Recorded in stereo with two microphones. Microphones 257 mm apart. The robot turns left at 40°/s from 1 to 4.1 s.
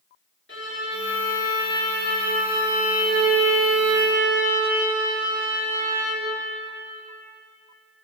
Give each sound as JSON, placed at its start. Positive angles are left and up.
{"t": 0.5, "sound": "a violin", "azimuth_deg": 50, "distance_m": 5.5}